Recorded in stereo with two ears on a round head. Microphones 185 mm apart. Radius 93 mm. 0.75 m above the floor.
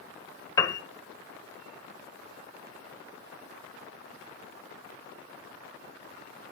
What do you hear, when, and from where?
0.6 s a piano: 15° left (ahead or behind), 1.2 m